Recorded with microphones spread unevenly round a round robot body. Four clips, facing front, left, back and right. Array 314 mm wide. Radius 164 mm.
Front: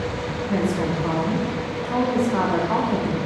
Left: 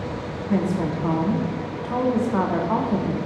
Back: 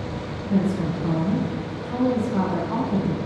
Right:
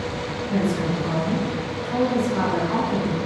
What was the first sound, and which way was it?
A woman speaking, 95° left.